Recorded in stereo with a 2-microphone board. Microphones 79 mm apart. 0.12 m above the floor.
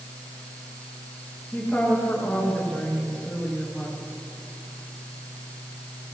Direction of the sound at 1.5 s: 10° left (ahead or behind).